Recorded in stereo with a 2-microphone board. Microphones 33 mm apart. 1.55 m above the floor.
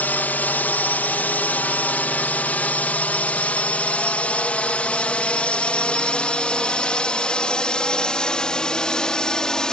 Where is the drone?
65° left (ahead or behind); by 9.7 s 20° left (ahead or behind).